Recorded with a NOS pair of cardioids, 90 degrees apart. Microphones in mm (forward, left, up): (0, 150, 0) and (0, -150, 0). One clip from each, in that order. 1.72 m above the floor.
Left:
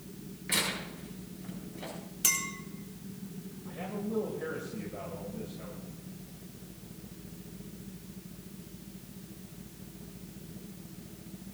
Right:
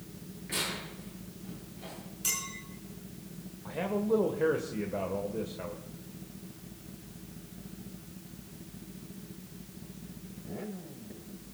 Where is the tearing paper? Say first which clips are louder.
Left 3 dB; 65° left, 8.5 m.